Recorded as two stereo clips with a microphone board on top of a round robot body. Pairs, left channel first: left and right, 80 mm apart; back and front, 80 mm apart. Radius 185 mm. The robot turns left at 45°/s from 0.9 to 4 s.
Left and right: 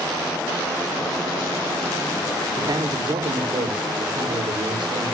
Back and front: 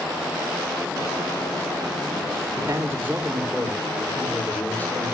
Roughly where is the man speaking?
Ahead right.